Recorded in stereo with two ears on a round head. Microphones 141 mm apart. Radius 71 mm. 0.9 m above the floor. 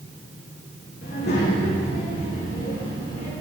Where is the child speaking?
70° left (ahead or behind), 2 m; by 3.3 s 80° left, 3.5 m.